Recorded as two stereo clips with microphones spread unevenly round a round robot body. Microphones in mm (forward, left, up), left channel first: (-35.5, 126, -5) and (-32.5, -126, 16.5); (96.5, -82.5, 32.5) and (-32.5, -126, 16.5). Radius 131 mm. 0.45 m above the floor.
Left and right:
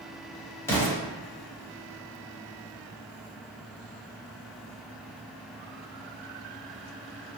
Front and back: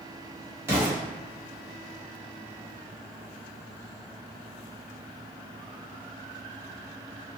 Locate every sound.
0.7 s an explosion: 155° left, 1.5 m